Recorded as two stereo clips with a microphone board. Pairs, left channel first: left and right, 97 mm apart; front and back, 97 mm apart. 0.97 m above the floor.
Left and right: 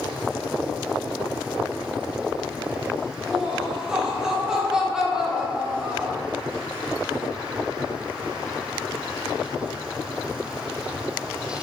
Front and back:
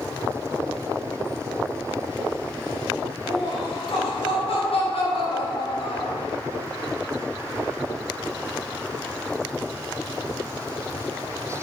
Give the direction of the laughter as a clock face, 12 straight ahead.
12 o'clock.